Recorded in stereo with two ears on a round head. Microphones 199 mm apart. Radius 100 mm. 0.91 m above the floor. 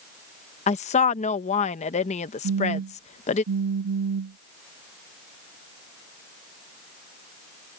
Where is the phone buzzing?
55° right (ahead or behind).